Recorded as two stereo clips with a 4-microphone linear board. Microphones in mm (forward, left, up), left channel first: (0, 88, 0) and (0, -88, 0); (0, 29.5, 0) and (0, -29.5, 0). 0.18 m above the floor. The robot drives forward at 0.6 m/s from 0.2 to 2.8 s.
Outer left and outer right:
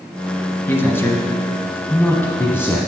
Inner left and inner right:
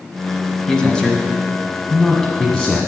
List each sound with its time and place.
0.7 s a man speaking: 15° left (ahead or behind), 1.2 m; by 2.8 s 10° left (ahead or behind), 1.3 m